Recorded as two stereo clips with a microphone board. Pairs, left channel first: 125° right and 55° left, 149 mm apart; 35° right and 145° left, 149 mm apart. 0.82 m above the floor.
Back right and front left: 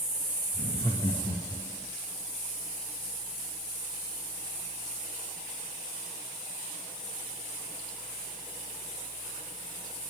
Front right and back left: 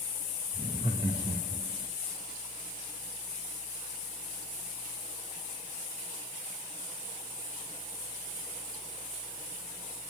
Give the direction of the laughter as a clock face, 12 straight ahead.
6 o'clock.